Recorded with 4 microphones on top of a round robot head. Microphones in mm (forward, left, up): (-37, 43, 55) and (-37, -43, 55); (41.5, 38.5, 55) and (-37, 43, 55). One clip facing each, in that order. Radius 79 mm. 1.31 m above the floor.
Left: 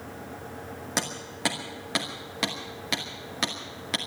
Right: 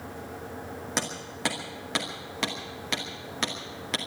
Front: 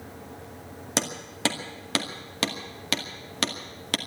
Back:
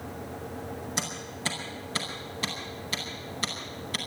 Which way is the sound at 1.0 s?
5° left.